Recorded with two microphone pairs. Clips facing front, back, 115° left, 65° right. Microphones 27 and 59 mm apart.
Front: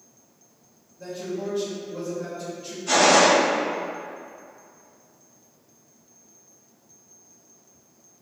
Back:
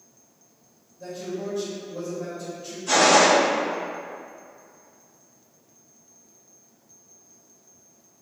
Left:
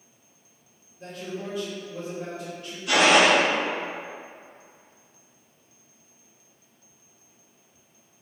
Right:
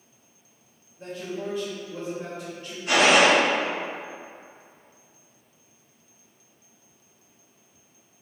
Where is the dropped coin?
I don't hear a dropped coin.